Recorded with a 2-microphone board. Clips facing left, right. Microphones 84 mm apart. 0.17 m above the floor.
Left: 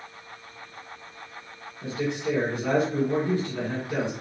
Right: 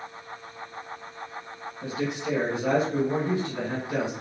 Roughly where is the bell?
No bell in this recording.